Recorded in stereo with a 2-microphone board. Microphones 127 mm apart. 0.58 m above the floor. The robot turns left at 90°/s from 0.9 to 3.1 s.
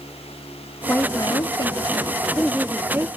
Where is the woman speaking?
155° left, 0.9 m; by 3.1 s 40° right, 0.9 m.